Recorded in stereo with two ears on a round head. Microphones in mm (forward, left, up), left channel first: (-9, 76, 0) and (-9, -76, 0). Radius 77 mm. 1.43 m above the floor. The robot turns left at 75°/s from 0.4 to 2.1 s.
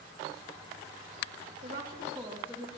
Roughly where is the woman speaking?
Behind right.